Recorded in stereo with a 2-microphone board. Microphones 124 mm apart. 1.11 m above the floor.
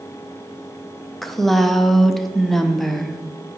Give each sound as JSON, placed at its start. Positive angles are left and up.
{"t": 1.2, "sound": "a woman speaking", "side_deg": 0, "distance_m": 0.6}